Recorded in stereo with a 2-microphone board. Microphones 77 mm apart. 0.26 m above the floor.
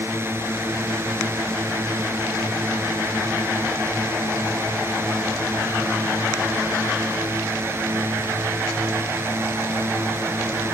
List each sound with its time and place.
0.0 s a drone: 30° right (ahead or behind)